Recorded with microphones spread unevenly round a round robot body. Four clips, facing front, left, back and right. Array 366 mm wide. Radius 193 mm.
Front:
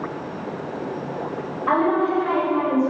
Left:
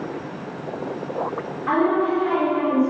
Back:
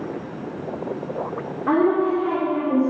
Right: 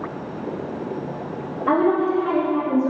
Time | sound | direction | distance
1.7 | a woman speaking | 155° right | 2.5 m